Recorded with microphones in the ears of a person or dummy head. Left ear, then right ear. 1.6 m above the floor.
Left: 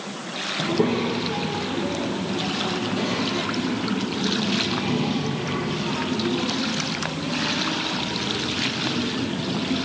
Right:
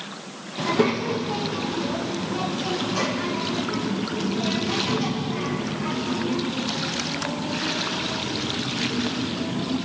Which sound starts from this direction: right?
A child speaking, at 0.6 s.